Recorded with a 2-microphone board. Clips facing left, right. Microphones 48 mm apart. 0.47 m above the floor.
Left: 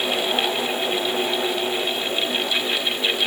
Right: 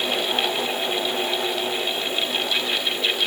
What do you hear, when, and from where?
Only background noise.